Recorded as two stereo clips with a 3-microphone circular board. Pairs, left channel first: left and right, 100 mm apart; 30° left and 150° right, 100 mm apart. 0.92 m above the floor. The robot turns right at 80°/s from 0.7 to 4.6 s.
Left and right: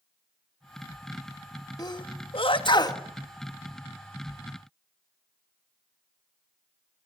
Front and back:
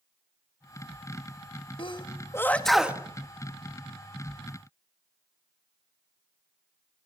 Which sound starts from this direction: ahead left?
A sneeze, at 1.8 s.